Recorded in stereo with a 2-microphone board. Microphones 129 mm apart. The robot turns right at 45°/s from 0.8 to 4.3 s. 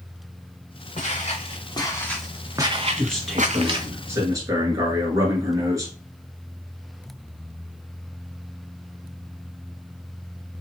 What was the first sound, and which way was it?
Footsteps, 80° left.